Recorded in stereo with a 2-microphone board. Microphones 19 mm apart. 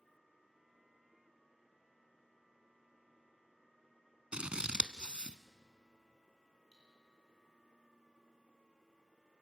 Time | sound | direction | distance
4.3 | scissors | 70° right (ahead or behind) | 0.7 m
6.7 | cutlery clinking | 10° right (ahead or behind) | 7.5 m